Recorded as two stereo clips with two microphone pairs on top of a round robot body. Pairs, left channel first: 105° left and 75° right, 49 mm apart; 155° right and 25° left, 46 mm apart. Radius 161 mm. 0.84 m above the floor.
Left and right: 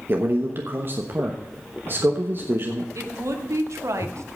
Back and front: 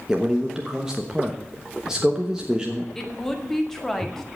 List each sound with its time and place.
0.1 s a man speaking: 45° right, 1.3 m
3.0 s a woman speaking: 70° right, 2 m